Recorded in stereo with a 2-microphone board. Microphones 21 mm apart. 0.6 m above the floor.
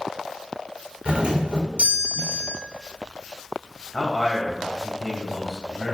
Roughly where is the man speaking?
Centre.